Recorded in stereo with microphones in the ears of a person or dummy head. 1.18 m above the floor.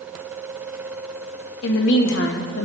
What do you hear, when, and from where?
1.6 s a woman speaking: 60° left (ahead or behind), 1.7 m